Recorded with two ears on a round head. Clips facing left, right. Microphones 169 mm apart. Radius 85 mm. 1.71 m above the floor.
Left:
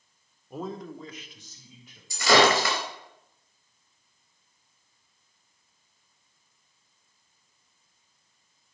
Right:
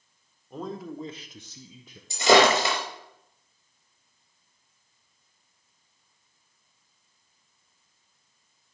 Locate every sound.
0.5 s a man speaking: 10° left (ahead or behind), 1.4 m; by 2.0 s 75° right (ahead or behind), 1.3 m
2.1 s breaking glass: 20° right (ahead or behind), 3.5 m